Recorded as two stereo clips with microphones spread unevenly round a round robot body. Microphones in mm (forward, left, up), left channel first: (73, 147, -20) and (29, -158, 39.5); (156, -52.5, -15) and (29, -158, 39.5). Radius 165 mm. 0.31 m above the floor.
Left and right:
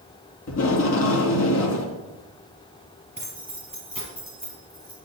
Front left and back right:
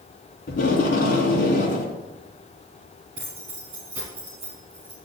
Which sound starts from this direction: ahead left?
Tape being pulled, at 0.5 s.